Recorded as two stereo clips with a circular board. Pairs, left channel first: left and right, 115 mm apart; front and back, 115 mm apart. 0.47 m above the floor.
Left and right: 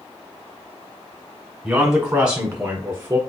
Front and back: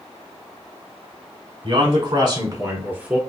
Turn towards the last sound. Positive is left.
turn(degrees=-110)